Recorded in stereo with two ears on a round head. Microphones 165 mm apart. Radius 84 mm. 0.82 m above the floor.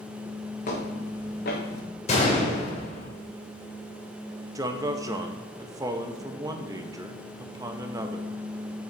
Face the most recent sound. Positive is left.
turn(degrees=-15)  # may be behind; listen again after turning